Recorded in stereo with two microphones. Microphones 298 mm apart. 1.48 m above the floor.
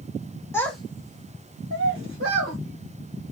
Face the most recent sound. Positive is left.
turn(degrees=-55)  # may be behind; listen again after turning